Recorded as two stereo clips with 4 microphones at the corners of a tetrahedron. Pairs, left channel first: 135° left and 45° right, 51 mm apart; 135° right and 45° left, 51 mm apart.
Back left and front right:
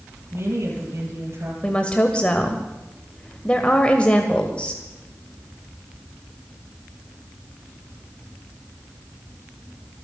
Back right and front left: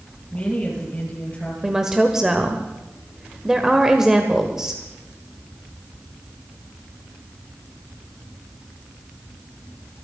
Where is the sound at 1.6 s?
105° left, 1.5 m.